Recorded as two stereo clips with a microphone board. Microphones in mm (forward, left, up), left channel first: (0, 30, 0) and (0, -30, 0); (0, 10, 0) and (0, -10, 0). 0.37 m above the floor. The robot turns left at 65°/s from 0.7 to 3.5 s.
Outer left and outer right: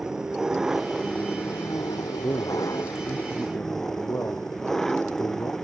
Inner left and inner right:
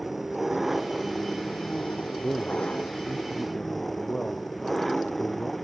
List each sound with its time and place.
0.0 s an engine running: 170° right; by 5.6 s 5° left
2.2 s a man speaking: 135° left; by 5.5 s 50° left